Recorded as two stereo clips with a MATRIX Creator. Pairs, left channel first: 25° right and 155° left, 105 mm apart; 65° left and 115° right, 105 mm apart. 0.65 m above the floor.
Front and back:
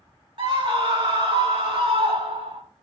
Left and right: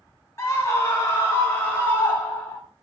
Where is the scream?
130° left, 2.5 m; by 2.6 s 135° left, 4.5 m.